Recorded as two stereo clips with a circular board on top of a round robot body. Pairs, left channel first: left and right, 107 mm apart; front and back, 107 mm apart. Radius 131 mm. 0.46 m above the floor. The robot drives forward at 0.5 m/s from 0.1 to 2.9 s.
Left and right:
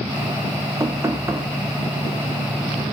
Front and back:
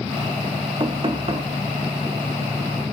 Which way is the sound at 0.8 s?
145° right.